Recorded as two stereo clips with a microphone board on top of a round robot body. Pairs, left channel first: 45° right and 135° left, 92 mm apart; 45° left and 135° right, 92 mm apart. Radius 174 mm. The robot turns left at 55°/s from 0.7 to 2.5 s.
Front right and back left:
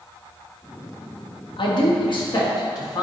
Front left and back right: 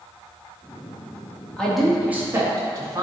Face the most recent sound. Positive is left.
turn(degrees=-85)